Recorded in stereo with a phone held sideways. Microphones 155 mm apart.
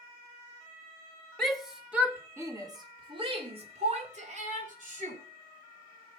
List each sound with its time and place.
1.4 s a shout: 5° left (ahead or behind), 3 m; by 5.2 s 55° right (ahead or behind), 5 m